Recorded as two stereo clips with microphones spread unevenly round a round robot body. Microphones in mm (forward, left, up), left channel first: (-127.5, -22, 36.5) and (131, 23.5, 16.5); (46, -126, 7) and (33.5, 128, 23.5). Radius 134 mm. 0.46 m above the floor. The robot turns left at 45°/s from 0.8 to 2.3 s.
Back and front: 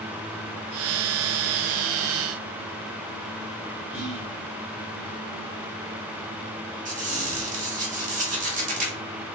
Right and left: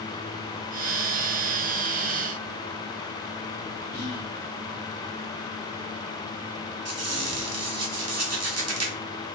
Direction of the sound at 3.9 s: 70° left.